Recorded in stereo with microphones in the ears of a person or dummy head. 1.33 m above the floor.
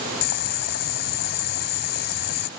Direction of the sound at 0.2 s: 55° left (ahead or behind).